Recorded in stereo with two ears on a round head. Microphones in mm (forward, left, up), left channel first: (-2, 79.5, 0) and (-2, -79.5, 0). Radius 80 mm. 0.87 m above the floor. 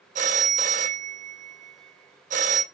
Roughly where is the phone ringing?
Right.